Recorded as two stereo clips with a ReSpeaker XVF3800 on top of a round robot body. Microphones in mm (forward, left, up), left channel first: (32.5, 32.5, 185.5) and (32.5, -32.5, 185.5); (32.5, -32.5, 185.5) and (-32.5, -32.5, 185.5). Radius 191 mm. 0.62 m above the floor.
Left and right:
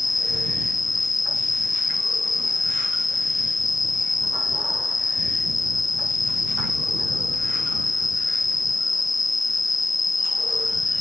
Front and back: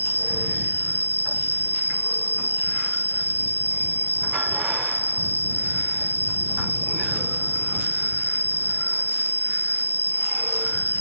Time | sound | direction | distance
0.0 | an insect | 115° left | ?